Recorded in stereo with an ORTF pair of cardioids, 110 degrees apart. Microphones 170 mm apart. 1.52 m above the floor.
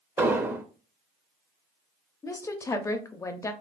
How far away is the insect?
I don't hear an insect.